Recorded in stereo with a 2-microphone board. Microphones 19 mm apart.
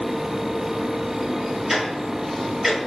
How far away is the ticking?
About 1.2 m.